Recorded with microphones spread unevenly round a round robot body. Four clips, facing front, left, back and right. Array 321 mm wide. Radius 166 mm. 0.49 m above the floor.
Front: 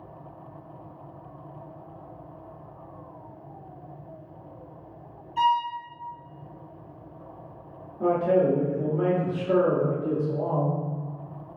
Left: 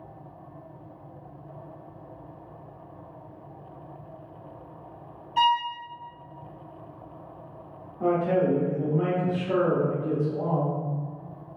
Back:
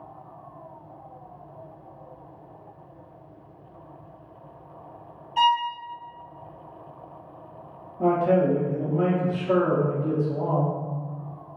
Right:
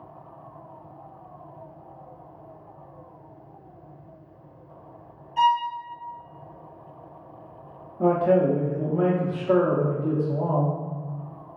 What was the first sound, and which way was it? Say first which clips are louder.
A violin: right 2 dB, back 1 dB; 140° left.